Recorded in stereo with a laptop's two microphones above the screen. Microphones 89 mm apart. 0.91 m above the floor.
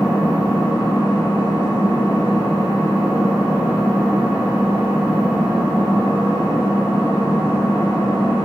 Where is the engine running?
15° right (ahead or behind), 2 m.